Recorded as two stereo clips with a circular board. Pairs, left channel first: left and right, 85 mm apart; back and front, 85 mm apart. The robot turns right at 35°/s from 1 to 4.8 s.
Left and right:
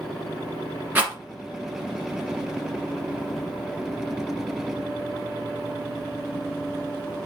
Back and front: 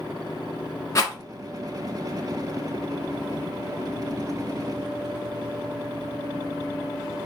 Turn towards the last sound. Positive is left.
turn(degrees=-20)